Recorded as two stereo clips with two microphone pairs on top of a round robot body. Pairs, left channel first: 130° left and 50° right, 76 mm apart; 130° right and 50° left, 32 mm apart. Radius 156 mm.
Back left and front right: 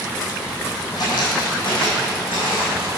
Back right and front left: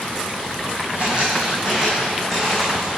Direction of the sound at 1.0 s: 95° left.